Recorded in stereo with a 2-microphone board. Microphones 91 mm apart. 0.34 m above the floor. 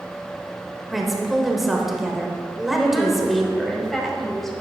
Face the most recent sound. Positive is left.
turn(degrees=5)  # may be behind; listen again after turning